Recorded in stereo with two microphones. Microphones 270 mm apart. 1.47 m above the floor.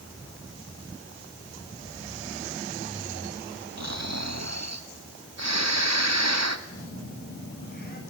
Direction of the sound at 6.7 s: 35° left (ahead or behind).